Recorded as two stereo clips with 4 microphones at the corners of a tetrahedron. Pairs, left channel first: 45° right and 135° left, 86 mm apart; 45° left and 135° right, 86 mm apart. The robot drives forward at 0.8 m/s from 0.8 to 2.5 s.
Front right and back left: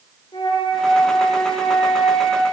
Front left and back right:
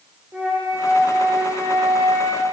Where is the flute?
65° right, 6.5 m; by 2.4 s 75° right, 6 m.